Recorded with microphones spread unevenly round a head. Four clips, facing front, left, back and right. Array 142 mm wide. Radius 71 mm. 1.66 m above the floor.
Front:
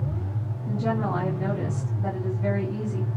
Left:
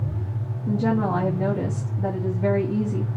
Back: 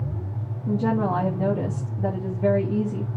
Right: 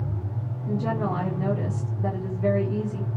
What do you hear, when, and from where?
0.7 s a woman speaking: 145° left, 3 m